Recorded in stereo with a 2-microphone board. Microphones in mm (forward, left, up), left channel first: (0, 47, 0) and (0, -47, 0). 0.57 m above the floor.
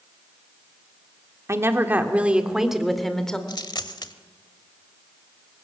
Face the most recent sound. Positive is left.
turn(degrees=45)  # may be behind; listen again after turning